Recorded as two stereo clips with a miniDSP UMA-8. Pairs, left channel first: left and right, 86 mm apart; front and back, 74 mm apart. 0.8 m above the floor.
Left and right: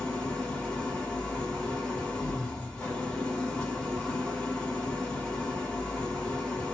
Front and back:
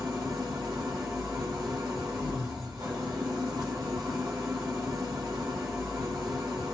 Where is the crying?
I don't hear crying.